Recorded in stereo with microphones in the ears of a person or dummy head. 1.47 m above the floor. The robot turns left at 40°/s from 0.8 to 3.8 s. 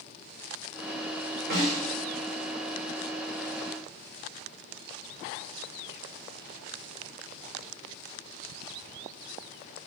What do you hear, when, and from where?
1.5 s a snare drum: 45° right (ahead or behind), 6.5 m; by 1.9 s 30° right (ahead or behind), 6.5 m